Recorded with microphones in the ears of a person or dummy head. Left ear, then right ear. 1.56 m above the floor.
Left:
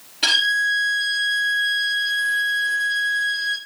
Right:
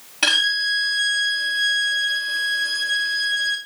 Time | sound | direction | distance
0.2 | a violin | 30° right (ahead or behind) | 1.6 m